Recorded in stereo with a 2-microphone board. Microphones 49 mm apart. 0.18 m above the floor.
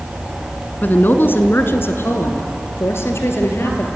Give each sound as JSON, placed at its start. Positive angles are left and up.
{"t": 0.8, "sound": "a woman speaking", "side_deg": 40, "distance_m": 1.5}